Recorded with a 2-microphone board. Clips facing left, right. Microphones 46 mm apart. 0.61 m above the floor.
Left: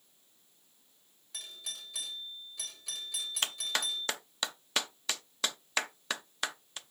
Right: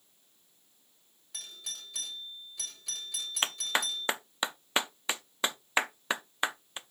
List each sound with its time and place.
1.3 s a doorbell: centre (ahead or behind), 1.7 m
3.4 s a clap: 20° right (ahead or behind), 0.5 m